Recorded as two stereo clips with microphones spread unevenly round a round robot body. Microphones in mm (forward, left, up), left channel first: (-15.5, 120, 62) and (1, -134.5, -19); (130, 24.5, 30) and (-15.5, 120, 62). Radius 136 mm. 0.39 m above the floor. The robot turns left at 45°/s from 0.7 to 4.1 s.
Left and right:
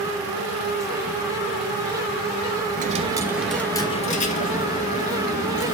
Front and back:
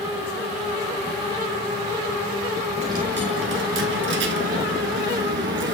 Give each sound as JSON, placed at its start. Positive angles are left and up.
{"t": 2.8, "sound": "a dropped coin", "azimuth_deg": -145, "distance_m": 1.0}